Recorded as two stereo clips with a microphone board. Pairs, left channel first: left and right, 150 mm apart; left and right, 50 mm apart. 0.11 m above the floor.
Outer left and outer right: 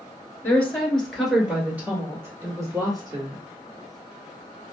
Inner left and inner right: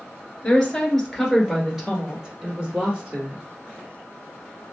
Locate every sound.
0.4 s a woman speaking: 15° left (ahead or behind), 1.4 m; by 3.4 s 30° right (ahead or behind), 2 m